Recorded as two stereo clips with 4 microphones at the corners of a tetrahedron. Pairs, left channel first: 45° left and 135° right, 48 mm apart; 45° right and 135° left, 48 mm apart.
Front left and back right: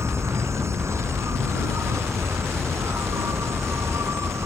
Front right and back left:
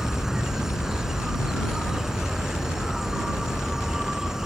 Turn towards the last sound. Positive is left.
turn(degrees=-145)